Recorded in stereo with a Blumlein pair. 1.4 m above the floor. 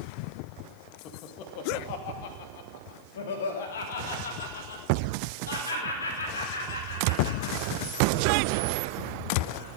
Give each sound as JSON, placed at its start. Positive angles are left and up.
{"t": 1.1, "sound": "laughter", "azimuth_deg": 35, "distance_m": 2.0}